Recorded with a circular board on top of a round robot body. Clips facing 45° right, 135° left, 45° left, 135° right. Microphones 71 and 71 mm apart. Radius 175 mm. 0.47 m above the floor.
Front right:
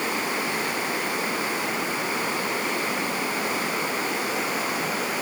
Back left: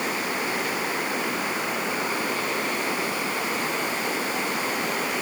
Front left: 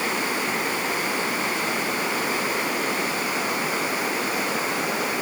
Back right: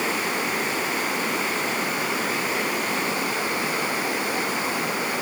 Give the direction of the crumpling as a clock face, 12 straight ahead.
No crumpling in this recording.